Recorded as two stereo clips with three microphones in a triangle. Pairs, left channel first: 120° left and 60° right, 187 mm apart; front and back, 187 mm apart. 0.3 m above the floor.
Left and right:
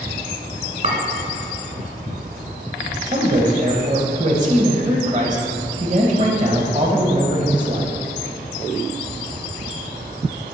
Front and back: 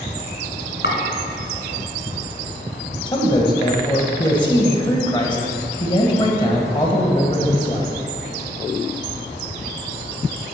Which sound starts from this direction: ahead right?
A man speaking, at 3.1 s.